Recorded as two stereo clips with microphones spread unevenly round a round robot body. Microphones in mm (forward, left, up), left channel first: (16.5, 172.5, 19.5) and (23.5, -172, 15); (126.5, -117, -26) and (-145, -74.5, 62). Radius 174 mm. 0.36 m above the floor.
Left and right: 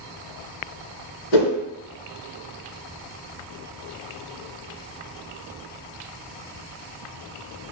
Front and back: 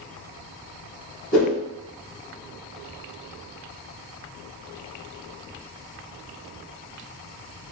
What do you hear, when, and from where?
1.3 s a whoosh: 90° left, 1.5 m